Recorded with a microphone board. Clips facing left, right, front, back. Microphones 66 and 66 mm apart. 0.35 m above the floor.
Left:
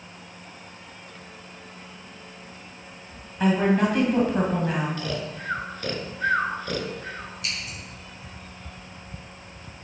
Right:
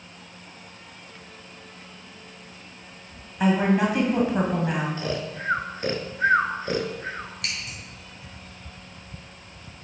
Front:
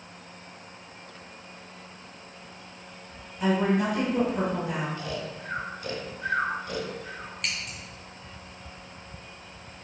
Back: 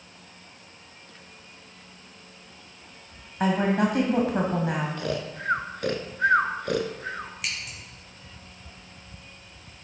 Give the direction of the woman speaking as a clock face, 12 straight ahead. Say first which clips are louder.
Even, back 1 dB; 6 o'clock.